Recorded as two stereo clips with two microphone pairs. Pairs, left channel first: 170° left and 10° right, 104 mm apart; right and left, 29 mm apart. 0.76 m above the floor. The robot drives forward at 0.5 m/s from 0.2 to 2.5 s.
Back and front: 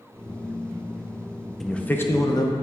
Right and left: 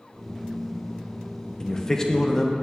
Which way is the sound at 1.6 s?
100° right.